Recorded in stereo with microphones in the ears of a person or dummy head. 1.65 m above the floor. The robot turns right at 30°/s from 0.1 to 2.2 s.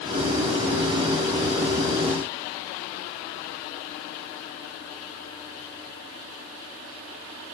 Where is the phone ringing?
I don't hear a phone ringing.